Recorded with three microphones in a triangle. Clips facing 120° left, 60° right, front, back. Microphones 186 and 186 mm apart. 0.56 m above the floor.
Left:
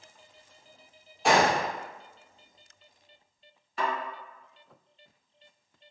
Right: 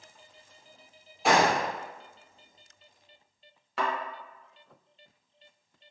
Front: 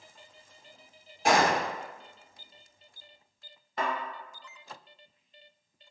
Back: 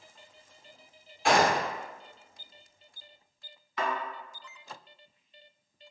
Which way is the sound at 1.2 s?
25° left.